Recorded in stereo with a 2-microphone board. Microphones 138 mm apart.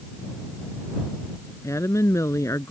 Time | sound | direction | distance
1.6 | a woman speaking | 20° left (ahead or behind) | ?